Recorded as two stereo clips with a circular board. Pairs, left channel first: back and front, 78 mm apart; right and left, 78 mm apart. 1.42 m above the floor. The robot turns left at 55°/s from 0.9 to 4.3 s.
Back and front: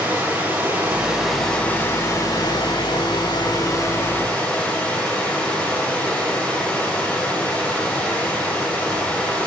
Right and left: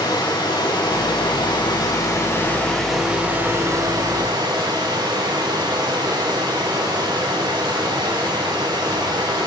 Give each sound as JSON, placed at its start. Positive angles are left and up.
{"t": 0.0, "sound": "running water", "azimuth_deg": -70, "distance_m": 4.5}